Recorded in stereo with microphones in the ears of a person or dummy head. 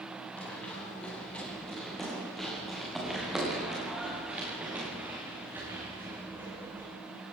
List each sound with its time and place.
0.4 s running footsteps: 10° left (ahead or behind), 8.5 m; by 6.9 s 15° right (ahead or behind), 8 m